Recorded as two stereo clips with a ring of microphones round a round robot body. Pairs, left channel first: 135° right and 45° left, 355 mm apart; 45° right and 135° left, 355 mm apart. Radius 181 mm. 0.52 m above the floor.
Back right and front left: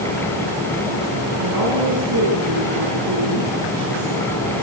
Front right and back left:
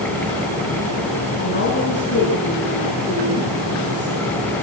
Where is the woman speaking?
15° left, 8 m.